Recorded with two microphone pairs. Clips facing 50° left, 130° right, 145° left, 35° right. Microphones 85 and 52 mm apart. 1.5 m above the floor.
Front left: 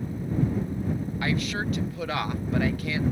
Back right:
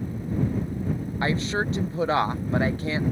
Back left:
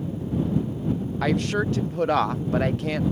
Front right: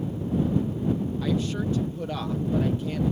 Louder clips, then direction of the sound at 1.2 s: Back right 4 dB, back left 7 dB; 170° left.